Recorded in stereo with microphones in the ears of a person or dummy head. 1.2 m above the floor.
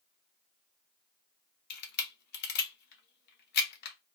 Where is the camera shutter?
55° left (ahead or behind), 0.9 m.